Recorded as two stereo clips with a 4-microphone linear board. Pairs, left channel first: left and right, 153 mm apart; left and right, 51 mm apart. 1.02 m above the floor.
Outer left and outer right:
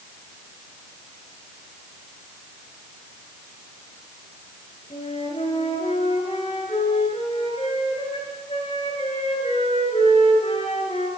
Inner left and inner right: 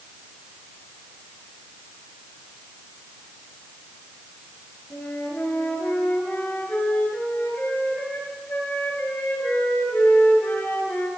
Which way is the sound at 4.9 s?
40° left (ahead or behind).